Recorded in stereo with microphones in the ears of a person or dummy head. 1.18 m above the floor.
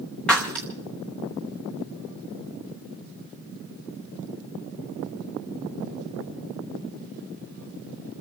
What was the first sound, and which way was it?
Breaking glass, 5° left (ahead or behind).